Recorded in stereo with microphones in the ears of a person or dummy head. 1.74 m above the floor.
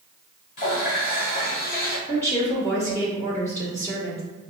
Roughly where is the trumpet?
No trumpet in this recording.